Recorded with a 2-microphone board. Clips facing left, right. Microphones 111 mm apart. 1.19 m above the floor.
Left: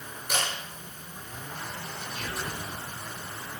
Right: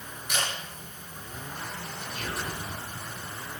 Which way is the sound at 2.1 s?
50° right (ahead or behind).